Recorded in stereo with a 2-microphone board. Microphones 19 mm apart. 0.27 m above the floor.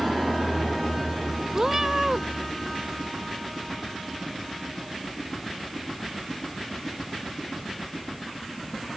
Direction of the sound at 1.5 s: 25° right (ahead or behind).